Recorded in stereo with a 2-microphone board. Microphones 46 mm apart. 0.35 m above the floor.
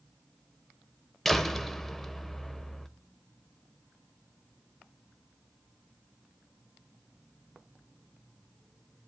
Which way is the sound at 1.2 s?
5° left (ahead or behind).